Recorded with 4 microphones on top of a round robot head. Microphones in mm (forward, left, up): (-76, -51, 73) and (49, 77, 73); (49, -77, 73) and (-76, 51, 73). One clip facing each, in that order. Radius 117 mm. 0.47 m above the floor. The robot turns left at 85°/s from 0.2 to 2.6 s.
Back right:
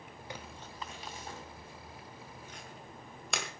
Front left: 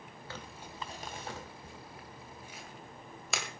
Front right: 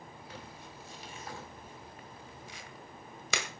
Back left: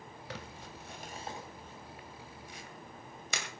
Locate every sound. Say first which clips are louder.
0.3 s crumpling: even, back left 5 dB; 155° left, 2 m; by 3.5 s 45° right, 2 m